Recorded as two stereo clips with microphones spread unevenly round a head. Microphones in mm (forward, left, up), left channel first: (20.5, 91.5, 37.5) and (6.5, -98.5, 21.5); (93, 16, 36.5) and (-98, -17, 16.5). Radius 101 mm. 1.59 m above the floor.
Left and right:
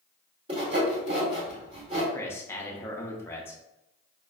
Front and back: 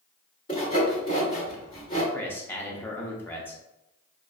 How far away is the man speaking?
About 0.5 m.